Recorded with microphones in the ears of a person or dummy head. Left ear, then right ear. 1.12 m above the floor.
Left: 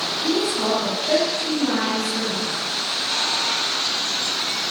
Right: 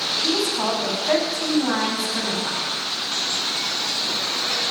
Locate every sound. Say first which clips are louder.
0.2 s a woman speaking: left 3 dB; 40° right (ahead or behind), 8 m